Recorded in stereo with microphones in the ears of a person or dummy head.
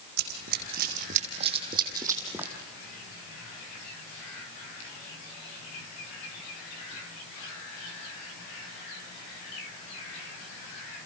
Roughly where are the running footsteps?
Right.